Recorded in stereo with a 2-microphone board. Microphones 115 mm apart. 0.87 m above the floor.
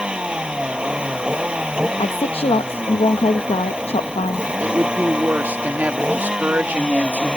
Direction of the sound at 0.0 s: 10° right (ahead or behind).